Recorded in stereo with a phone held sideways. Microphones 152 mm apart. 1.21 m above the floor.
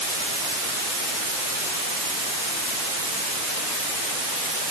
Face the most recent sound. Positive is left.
No sound to turn to.